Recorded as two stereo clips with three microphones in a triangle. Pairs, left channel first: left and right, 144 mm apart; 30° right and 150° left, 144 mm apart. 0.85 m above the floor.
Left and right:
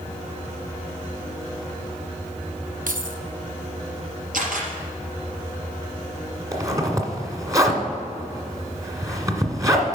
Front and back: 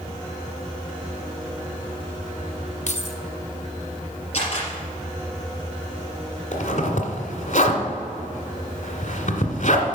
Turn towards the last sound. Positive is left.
turn(degrees=-25)